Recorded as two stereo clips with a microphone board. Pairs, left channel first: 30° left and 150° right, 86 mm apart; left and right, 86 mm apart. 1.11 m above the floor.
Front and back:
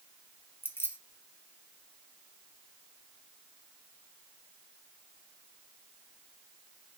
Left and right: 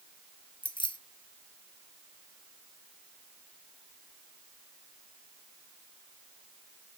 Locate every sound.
0.6 s keys jangling: 95° left, 0.6 m